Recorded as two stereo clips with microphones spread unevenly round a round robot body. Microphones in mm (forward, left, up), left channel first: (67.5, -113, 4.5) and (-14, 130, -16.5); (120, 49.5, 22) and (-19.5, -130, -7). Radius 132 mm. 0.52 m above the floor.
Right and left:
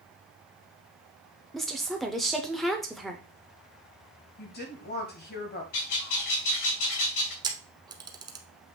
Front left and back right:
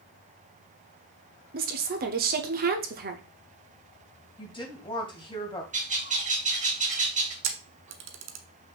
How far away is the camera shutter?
About 0.8 m.